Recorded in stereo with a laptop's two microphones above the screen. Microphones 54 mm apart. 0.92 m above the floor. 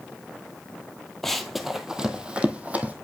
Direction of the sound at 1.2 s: 5° left (ahead or behind).